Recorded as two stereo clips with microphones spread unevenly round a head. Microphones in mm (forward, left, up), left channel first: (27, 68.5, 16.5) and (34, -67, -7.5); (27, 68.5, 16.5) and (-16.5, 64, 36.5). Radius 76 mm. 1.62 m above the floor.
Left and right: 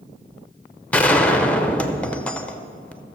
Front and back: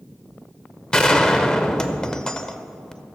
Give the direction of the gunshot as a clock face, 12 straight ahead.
8 o'clock.